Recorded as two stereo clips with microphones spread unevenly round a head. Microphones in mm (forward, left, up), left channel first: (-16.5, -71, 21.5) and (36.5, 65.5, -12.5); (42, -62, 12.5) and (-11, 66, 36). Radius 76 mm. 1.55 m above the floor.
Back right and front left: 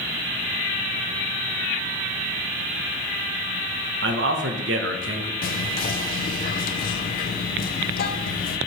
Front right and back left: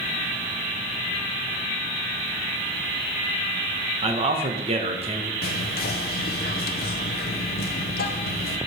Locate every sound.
4.0 s a man speaking: 75° left, 1.0 m
5.4 s whispering: 100° right, 0.6 m